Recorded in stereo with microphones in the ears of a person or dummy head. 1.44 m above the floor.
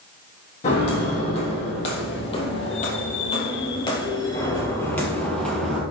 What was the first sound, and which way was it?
Footsteps, 35° left (ahead or behind).